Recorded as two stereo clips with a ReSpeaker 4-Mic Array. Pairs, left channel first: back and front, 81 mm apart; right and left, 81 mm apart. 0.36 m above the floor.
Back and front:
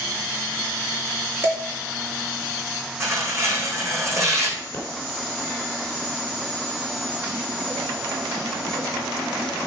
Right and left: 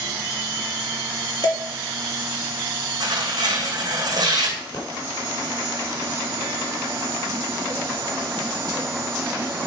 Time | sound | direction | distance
1.4 | dishes clattering | 65° right | 4 m
3.0 | tearing paper | 55° left | 3 m
4.7 | a pop | 125° right | 3.5 m